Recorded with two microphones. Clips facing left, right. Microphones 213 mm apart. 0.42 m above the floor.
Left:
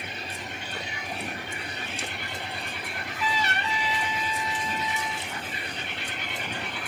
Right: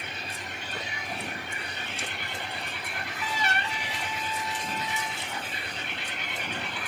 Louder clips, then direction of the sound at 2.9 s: Left 5 dB; 50° right (ahead or behind).